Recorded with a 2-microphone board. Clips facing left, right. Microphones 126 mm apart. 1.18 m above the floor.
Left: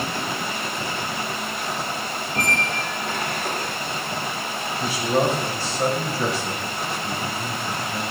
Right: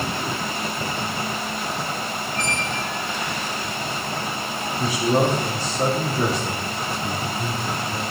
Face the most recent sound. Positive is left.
turn(degrees=-40)  # may be behind; listen again after turning